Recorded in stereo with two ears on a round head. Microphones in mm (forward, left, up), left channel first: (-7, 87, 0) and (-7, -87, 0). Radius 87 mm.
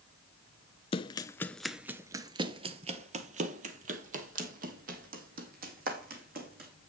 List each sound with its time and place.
0.9 s running footsteps: 30° left (ahead or behind), 0.7 m; by 6.7 s 45° right (ahead or behind), 3 m